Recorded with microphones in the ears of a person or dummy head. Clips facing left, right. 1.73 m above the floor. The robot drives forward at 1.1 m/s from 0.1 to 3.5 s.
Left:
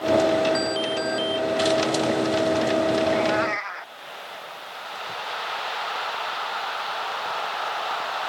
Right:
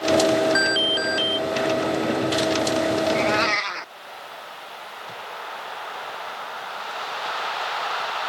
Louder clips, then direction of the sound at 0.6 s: Even; 15° right (ahead or behind).